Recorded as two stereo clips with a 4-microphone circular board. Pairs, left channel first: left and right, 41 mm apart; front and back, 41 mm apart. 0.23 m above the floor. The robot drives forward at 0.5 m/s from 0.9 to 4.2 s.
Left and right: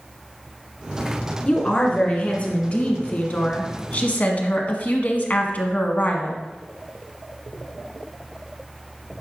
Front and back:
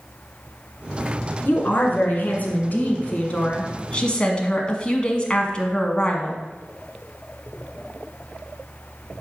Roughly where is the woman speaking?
Ahead left.